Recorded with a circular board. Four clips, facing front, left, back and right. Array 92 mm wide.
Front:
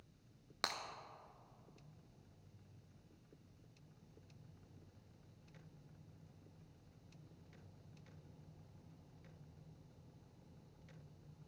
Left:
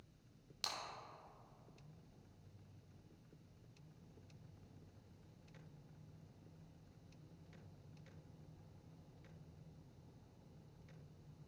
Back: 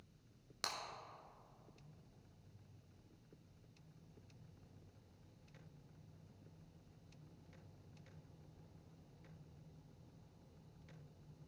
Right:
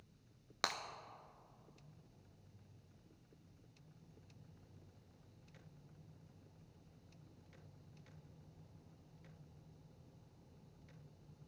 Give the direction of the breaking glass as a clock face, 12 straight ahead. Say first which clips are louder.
Right 7 dB, front 3 dB; 2 o'clock.